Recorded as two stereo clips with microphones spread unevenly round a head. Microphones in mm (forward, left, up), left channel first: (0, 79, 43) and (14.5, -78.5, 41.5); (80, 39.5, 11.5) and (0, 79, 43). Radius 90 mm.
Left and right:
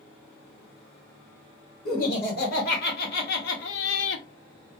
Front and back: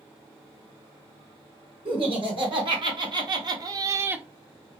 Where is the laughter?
130° left, 2.0 m; by 4.2 s 80° left, 0.5 m.